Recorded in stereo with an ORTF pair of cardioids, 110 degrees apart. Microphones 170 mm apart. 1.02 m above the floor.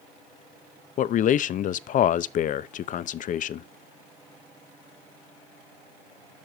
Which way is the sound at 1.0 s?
55° left.